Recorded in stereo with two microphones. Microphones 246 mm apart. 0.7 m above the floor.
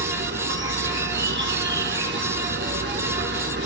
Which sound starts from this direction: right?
An insect, at 0.0 s.